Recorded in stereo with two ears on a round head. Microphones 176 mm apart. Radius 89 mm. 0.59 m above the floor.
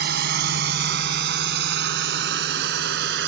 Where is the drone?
55° right (ahead or behind); by 3.3 s 65° right (ahead or behind).